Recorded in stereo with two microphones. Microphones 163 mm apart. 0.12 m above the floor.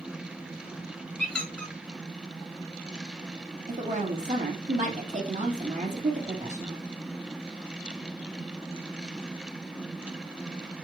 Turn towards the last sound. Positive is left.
turn(degrees=-50)  # may be behind; listen again after turning